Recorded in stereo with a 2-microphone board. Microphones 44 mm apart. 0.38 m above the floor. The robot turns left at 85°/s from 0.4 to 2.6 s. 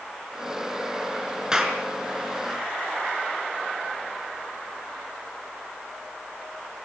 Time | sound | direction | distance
1.5 | a clap | 15° right (ahead or behind) | 4 m